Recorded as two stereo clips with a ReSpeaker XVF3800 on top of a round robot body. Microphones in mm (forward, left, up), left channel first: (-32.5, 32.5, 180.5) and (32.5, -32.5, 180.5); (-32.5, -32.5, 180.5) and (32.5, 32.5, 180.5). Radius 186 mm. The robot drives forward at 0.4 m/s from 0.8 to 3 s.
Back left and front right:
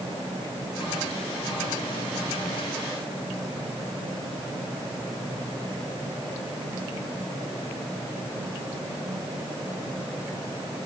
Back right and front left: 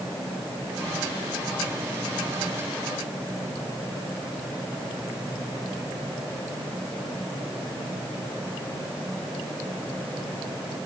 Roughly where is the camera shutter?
No camera shutter in this recording.